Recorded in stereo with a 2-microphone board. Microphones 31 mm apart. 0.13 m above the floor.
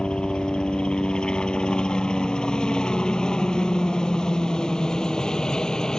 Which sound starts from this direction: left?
A helicopter, at 0.0 s.